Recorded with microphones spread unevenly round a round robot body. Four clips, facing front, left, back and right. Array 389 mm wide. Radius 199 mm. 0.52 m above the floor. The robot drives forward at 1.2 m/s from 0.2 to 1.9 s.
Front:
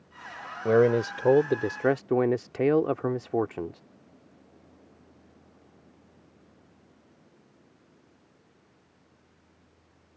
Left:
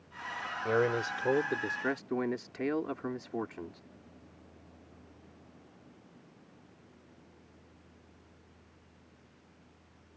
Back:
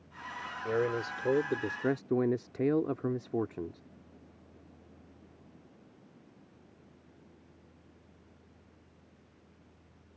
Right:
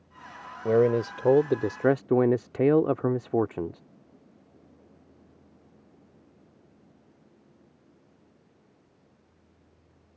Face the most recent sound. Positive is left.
turn(degrees=-60)